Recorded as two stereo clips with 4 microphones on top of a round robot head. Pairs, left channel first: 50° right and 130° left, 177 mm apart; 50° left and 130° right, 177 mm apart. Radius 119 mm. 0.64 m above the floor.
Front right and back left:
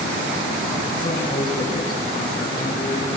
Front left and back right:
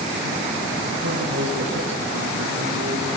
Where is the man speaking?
115° right, 9 m.